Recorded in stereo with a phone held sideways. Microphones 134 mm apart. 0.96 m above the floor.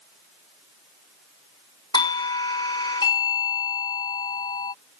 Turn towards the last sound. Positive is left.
turn(degrees=30)  # may be behind; listen again after turning